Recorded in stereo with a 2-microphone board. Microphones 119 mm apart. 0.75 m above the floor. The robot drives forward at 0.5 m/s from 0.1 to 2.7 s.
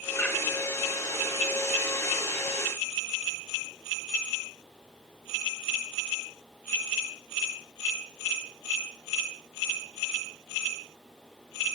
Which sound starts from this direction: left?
A bird, at 0.2 s.